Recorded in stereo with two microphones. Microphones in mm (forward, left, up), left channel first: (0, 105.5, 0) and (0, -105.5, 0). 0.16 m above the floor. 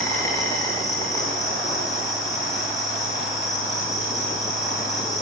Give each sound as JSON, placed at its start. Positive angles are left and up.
{"t": 0.0, "sound": "an insect", "side_deg": 15, "distance_m": 6.0}